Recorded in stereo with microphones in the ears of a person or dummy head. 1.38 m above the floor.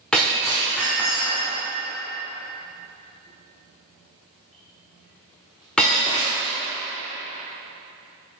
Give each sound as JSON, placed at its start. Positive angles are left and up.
{"t": 0.1, "sound": "breaking glass", "side_deg": 5, "distance_m": 1.1}